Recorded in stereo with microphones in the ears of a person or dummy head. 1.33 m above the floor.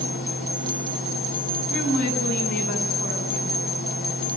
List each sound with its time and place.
0.0 s a fan: 65° left (ahead or behind), 3 m
1.7 s a woman speaking: 60° left (ahead or behind), 9.5 m